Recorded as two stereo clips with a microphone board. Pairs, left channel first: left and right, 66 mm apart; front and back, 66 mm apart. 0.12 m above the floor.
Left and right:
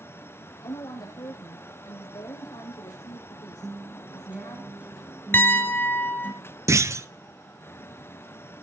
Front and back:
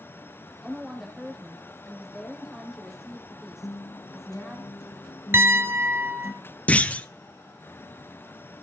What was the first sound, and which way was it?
A woman speaking, 95° left.